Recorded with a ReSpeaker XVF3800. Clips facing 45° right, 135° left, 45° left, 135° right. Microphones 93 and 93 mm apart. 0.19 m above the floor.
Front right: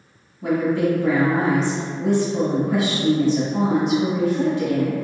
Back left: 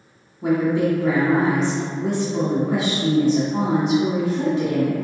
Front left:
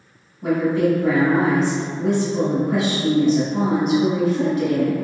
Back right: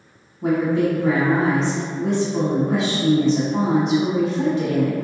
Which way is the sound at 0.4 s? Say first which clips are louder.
Back left 1 dB, even; 170° right.